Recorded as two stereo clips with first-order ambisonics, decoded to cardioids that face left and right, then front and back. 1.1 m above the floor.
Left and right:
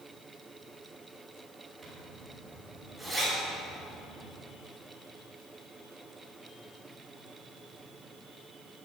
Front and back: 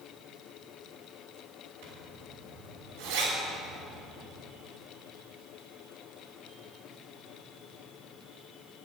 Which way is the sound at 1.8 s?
Straight behind.